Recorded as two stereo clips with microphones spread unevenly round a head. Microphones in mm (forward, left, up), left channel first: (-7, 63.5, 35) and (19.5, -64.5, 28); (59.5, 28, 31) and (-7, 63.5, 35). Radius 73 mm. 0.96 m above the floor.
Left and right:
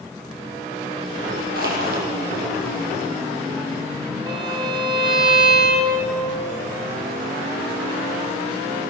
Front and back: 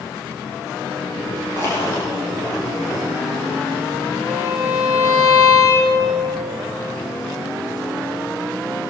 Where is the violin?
140° right, 3.5 m.